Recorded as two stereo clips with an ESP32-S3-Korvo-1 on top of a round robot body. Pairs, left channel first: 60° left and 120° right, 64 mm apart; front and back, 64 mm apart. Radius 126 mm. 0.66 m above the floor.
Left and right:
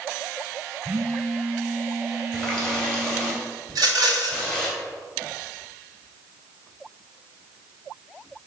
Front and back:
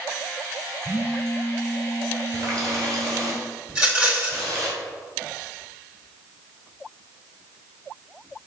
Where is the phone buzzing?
50° right, 2 m.